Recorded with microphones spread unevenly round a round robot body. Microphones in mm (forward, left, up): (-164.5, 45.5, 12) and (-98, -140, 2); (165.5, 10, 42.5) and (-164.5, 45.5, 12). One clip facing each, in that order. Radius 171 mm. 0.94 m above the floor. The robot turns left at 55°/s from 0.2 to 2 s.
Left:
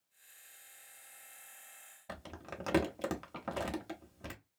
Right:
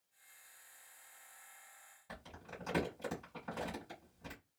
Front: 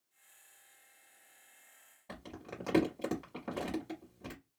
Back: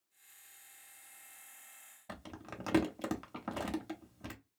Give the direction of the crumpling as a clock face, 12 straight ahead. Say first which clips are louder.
Left 5 dB, front 2 dB; 8 o'clock.